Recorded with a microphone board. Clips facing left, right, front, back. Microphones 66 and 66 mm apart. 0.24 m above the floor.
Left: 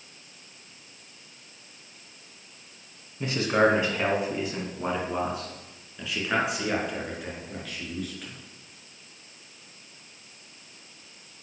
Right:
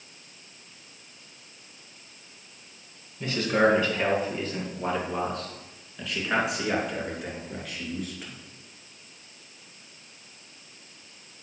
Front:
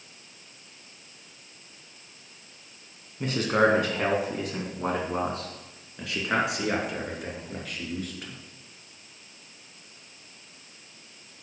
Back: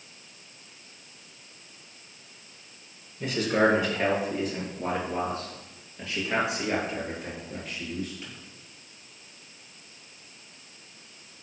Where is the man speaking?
30° left, 3 m; by 8.4 s 10° right, 4.5 m.